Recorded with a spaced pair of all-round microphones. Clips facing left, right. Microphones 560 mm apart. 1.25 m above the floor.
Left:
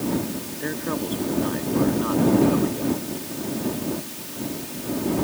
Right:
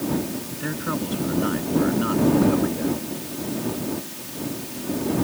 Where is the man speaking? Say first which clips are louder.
Even; 35° right (ahead or behind); by 3.0 s 40° right (ahead or behind).